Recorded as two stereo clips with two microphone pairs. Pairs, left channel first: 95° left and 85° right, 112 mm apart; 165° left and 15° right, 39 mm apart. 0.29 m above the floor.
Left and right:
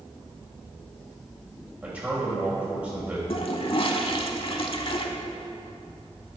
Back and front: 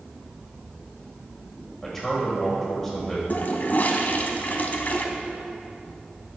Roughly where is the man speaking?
Behind right.